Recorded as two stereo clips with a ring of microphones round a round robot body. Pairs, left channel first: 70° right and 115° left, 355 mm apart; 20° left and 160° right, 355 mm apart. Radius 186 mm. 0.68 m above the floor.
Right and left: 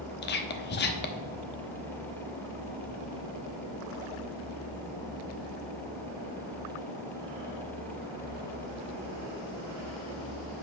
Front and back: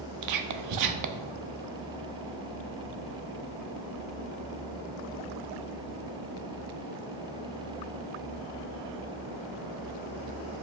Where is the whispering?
125° right, 0.9 m.